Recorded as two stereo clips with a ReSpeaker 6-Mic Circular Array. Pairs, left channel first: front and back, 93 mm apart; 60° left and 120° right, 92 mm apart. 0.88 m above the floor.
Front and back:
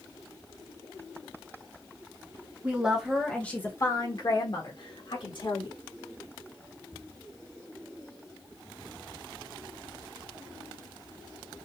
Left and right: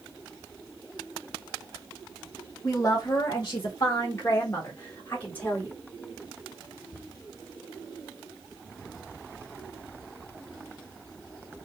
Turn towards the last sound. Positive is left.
turn(degrees=-15)